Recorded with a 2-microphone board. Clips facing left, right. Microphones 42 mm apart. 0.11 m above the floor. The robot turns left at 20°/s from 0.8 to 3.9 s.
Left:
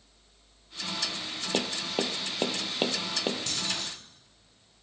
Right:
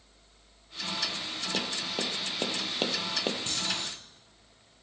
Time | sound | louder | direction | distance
1.5 | tapping | left 4 dB | 35° left (ahead or behind) | 0.5 m
3.5 | keys jangling | even | 30° right (ahead or behind) | 2.5 m